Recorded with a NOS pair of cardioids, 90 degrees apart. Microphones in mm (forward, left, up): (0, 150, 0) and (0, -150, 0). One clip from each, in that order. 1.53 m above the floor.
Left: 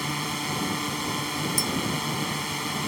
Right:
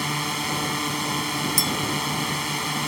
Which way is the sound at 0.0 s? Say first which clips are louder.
Right 3 dB; 25° right.